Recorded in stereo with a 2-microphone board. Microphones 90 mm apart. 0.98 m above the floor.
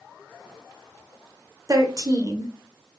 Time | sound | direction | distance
1.7 | a woman speaking | 40° right (ahead or behind) | 0.5 m